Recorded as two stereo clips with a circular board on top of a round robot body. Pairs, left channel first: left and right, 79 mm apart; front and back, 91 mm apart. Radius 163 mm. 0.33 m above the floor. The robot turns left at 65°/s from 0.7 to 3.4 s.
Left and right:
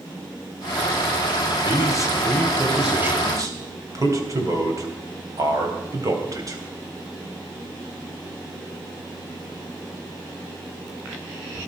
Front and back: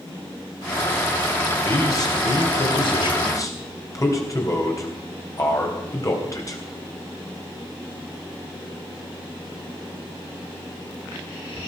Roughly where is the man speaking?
Ahead left.